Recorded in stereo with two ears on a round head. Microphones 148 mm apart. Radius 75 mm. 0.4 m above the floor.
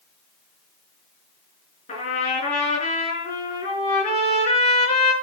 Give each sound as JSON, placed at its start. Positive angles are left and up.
{"t": 1.9, "sound": "a trumpet", "side_deg": 45, "distance_m": 6.5}